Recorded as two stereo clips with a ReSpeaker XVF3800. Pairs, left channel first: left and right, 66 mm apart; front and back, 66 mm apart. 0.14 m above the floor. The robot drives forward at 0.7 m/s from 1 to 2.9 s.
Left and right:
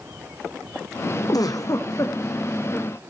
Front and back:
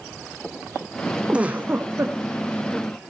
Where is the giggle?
105° left, 1.0 m; by 2.2 s 130° left, 1.3 m.